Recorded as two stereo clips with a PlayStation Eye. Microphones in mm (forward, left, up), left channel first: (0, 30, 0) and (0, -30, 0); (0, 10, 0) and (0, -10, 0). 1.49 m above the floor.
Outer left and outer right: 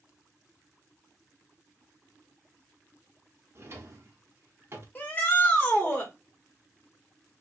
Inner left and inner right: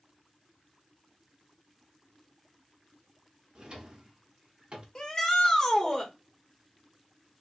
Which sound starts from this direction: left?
A shout, at 5.0 s.